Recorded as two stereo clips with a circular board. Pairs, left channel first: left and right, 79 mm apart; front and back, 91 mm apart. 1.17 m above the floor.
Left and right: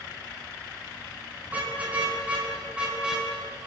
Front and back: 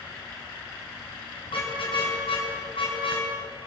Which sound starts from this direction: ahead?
A car horn, at 1.5 s.